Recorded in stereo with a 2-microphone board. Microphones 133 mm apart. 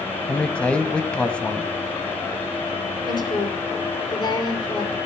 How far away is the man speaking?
About 1.4 m.